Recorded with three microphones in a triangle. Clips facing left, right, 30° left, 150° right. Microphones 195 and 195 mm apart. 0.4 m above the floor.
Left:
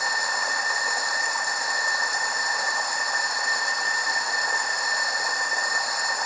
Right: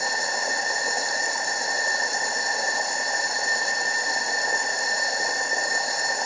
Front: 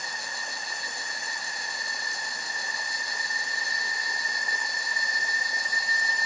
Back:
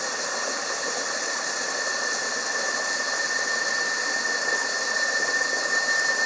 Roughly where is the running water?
Behind right.